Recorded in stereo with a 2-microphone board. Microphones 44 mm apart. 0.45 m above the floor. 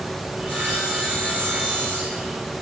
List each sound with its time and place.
0.4 s sawing: 35° right (ahead or behind), 4.5 m